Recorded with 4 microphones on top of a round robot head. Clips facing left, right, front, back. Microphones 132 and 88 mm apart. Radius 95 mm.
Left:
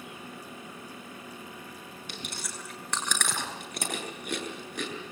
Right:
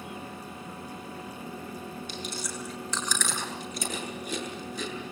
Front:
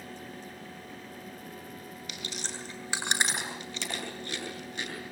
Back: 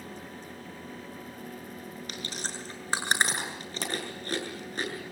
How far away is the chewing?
About 7.5 m.